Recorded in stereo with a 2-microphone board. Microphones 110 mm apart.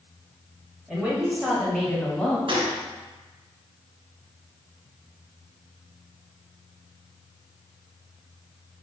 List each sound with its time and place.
0.9 s a woman speaking: 10° right (ahead or behind), 1.6 m; by 2.4 s 15° left (ahead or behind), 1.1 m
2.5 s a gunshot: 55° right (ahead or behind), 1.0 m